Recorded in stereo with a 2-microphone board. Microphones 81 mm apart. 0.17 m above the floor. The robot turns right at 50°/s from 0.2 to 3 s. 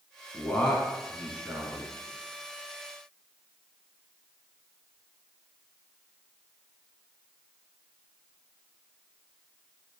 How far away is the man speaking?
About 1.3 m.